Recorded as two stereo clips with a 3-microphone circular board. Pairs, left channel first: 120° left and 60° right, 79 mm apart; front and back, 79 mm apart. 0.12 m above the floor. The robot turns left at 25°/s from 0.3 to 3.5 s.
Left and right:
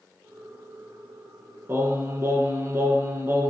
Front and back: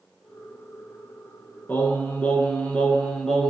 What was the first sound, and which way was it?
Singing, 40° right.